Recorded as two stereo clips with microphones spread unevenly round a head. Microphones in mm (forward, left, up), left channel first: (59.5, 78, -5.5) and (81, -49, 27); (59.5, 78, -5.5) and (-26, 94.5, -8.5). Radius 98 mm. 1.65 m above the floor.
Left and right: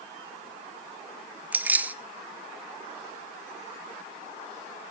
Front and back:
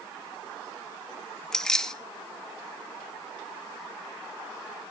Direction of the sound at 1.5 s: 80° right.